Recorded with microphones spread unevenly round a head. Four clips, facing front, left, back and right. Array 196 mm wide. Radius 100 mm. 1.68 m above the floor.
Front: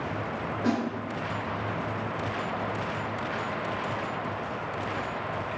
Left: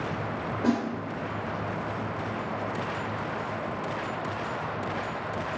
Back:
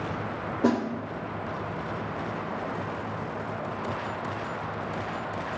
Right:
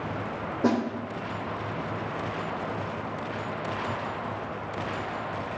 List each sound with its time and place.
0.6 s a snare drum: 150° right, 2.5 m